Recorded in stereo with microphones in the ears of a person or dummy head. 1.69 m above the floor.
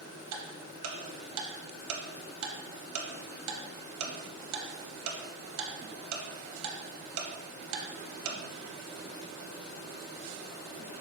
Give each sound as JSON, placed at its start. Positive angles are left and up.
{"t": 0.3, "sound": "ticking", "side_deg": -75, "distance_m": 0.6}